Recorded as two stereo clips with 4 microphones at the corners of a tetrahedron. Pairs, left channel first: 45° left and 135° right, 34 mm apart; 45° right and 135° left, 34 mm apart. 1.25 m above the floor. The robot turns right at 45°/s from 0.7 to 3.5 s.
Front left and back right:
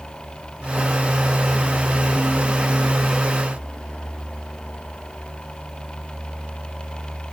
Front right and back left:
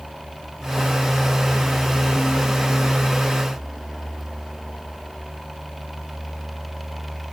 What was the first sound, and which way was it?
Only background noise.